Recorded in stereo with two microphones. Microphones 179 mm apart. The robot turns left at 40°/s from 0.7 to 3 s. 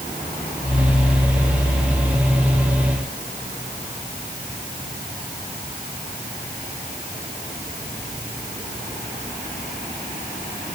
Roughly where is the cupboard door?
No cupboard door in this recording.